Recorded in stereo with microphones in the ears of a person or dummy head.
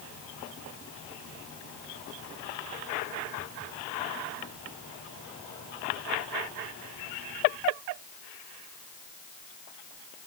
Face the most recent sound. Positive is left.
No sound to turn to.